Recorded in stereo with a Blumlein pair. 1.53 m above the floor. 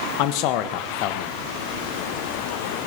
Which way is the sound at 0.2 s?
40° left.